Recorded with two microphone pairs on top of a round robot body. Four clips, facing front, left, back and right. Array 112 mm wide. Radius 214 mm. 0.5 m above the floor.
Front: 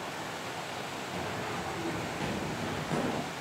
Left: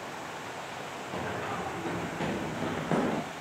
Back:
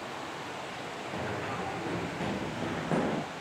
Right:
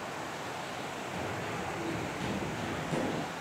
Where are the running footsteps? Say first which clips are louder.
Left 5 dB, back 2 dB; 110° left, 7.5 m; by 3.2 s 105° left, 5 m.